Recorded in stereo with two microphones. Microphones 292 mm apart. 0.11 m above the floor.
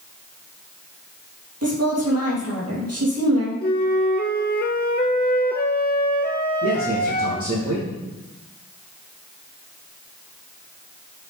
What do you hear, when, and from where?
1.6 s a woman speaking: 55° right (ahead or behind), 3.5 m
3.6 s a flute: 35° left (ahead or behind), 0.8 m
6.6 s a man speaking: 50° right (ahead or behind), 5 m